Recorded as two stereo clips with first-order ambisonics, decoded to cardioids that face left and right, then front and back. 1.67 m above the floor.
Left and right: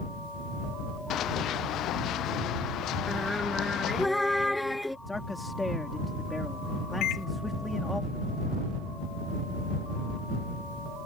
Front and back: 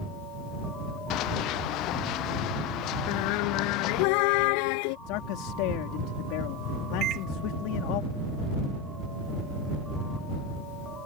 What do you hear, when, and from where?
1.1 s running footsteps: 40° left; by 4.1 s 45° left
3.1 s singing: straight ahead
5.1 s a man speaking: 5° left
7.0 s a microwave: 135° left